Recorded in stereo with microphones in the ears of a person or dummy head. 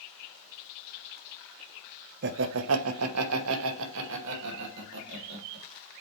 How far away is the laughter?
About 0.9 m.